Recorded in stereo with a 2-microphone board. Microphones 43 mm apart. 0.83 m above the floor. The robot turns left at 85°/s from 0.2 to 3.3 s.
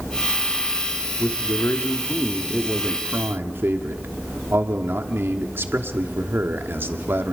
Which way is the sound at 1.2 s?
115° left.